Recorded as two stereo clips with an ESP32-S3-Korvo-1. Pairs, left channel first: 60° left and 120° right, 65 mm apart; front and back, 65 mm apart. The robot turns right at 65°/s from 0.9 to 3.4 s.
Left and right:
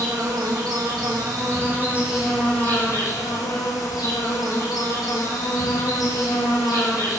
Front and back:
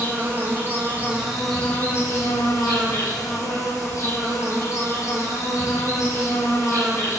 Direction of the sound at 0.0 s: 120° right.